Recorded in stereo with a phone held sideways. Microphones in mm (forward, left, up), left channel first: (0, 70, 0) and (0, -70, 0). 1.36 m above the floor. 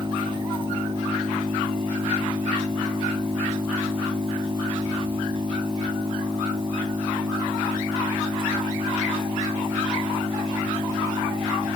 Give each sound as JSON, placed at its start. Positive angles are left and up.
{"t": 0.0, "sound": "an engine running", "side_deg": -35}